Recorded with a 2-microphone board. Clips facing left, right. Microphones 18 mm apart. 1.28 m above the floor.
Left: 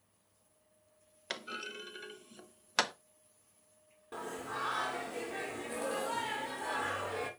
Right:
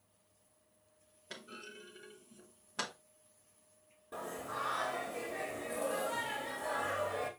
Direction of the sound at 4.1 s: 30° left (ahead or behind).